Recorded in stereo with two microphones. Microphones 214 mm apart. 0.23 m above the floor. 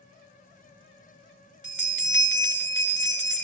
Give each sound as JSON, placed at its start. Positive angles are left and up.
{"t": 1.6, "sound": "a bell", "side_deg": 60, "distance_m": 1.3}